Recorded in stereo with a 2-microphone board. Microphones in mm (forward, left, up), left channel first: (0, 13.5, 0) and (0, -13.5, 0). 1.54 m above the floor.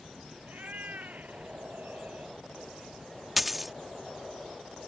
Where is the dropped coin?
5° right (ahead or behind).